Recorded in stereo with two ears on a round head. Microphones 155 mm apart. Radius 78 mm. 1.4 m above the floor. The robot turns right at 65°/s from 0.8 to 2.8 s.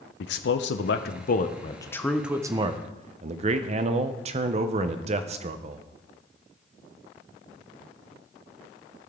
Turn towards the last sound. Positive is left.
turn(degrees=-140)